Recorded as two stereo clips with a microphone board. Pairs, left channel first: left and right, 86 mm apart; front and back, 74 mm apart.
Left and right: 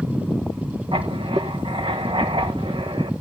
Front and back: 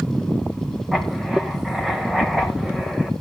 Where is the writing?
95° right, 1.5 m.